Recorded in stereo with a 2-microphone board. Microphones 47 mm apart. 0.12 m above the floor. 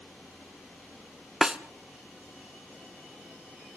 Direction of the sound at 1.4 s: 15° right (ahead or behind).